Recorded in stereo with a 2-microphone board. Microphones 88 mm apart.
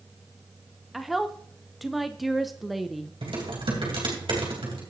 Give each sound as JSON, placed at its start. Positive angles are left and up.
{"t": 0.9, "sound": "a woman speaking", "side_deg": 0, "distance_m": 0.5}
{"t": 3.2, "sound": "typing on a keyboard", "side_deg": -75, "distance_m": 3.0}